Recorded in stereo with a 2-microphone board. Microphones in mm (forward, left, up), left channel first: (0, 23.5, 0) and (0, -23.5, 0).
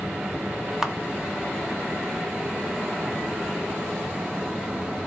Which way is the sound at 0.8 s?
10° right (ahead or behind).